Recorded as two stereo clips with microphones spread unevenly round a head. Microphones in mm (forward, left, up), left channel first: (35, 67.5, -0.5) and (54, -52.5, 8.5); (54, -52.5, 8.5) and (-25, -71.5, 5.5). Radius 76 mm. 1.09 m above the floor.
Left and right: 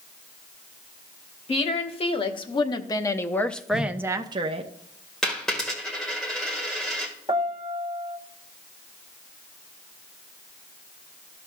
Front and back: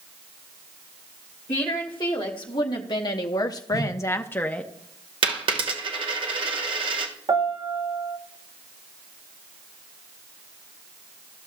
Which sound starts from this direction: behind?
A dropped coin, at 5.2 s.